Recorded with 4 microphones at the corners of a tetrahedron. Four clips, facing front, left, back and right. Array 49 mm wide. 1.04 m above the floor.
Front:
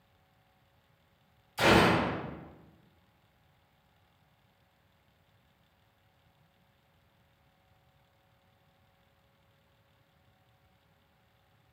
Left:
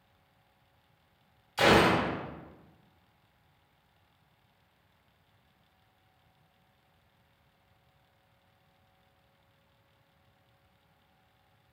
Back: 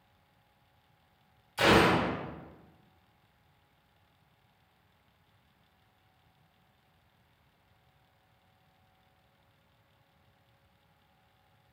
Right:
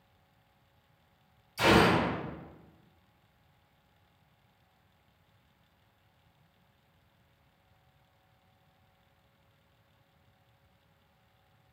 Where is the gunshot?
100° left, 1.3 m.